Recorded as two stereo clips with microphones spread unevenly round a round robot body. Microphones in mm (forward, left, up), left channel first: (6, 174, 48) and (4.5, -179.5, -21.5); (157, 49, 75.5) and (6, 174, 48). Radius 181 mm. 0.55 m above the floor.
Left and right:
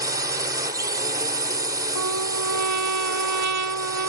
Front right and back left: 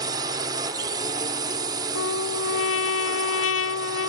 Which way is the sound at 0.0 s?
160° right.